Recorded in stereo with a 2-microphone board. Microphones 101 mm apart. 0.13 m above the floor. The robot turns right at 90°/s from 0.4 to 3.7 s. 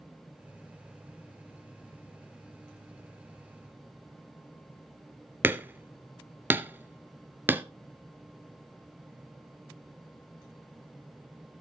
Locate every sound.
5.4 s hammering: 20° right (ahead or behind), 0.7 m